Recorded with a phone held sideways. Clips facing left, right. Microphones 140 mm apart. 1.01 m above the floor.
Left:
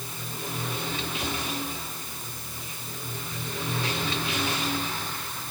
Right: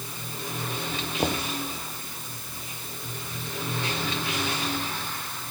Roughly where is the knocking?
Right.